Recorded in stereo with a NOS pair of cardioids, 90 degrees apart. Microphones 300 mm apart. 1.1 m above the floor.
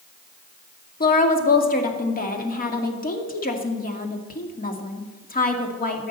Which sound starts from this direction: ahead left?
A woman speaking, at 1.0 s.